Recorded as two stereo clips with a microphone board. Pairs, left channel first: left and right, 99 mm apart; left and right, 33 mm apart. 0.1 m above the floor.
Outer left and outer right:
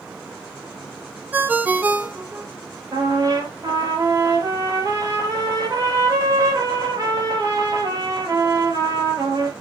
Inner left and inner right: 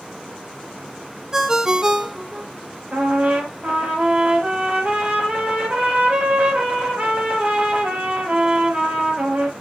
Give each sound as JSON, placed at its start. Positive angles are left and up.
{"t": 1.3, "sound": "a ringtone", "side_deg": -20, "distance_m": 0.7}
{"t": 2.9, "sound": "a trumpet", "side_deg": -35, "distance_m": 3.0}